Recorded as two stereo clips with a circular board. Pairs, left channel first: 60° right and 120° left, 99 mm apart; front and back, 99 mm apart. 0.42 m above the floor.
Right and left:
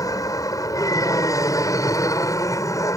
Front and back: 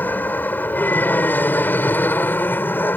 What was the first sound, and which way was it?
An aircraft, 60° right.